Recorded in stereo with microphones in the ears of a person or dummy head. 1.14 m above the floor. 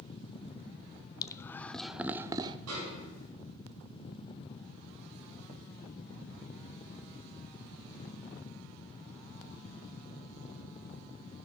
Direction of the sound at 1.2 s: 15° left (ahead or behind).